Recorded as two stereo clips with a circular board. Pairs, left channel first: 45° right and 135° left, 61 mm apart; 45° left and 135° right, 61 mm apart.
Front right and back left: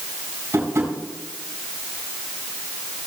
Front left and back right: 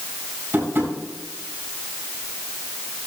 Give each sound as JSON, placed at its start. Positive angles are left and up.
{"t": 0.5, "sound": "tapping", "azimuth_deg": 170, "distance_m": 4.5}